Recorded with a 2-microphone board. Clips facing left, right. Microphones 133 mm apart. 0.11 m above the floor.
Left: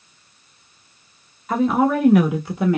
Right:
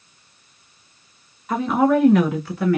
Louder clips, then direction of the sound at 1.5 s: Even; centre (ahead or behind).